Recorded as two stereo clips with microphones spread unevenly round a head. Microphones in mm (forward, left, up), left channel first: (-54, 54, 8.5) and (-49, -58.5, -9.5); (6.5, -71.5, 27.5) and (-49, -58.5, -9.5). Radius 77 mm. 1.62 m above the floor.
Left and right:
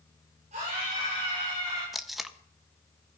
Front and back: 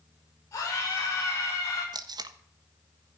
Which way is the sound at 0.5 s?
35° right.